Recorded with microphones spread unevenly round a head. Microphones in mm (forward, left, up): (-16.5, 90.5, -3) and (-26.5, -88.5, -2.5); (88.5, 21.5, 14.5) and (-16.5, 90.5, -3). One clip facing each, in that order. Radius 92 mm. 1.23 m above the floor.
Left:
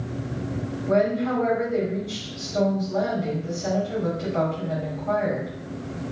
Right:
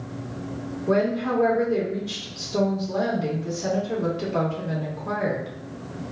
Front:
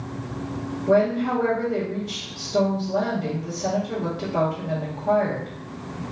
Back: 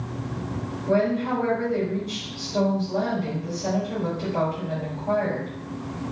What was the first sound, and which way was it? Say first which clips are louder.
A woman speaking: left 1 dB, front 3 dB; 85° right.